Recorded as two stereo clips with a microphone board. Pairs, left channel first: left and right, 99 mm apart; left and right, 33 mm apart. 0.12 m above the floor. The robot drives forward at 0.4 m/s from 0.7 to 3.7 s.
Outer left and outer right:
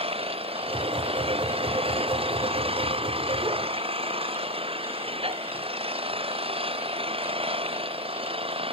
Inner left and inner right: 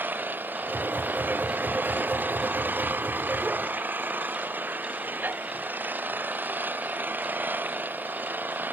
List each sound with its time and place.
0.0 s an engine running: 75° right (ahead or behind); by 8.7 s 70° right (ahead or behind)